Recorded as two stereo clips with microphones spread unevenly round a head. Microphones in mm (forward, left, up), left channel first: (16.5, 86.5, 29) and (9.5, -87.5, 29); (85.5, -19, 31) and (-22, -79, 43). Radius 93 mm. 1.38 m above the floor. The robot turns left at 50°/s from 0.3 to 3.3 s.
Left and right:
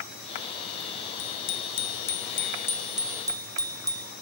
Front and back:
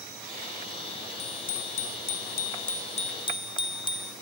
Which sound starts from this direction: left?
A bicycle bell, at 1.2 s.